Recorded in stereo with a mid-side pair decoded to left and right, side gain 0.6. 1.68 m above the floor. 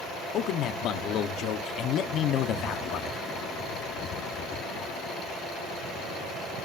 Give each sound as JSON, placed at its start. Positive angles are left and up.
{"t": 0.3, "sound": "a man speaking", "azimuth_deg": 55, "distance_m": 1.1}